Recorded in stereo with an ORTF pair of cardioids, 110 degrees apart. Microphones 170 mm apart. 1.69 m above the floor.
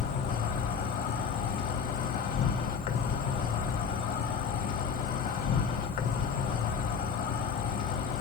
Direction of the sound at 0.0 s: 65° left.